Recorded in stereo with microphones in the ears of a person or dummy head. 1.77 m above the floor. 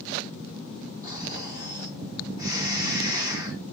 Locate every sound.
1.0 s snoring: 15° right (ahead or behind), 0.6 m